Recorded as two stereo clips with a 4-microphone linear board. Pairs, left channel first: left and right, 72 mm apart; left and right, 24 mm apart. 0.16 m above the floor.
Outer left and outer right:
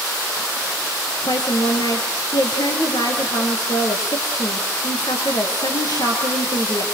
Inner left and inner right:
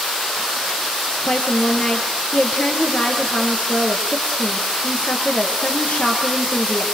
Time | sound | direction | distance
1.3 | a woman speaking | 70° left (ahead or behind) | 3.5 m